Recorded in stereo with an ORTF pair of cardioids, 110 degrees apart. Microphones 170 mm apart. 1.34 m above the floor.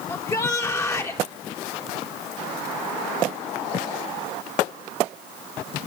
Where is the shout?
20° left, 5 m.